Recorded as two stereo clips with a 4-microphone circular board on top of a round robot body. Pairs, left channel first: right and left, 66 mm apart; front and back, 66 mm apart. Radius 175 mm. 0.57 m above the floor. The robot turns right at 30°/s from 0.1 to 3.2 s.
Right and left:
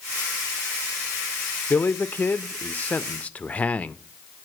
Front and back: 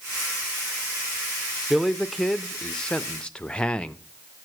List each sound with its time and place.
1.7 s a man speaking: 100° right, 0.7 m; by 4.0 s 55° right, 0.7 m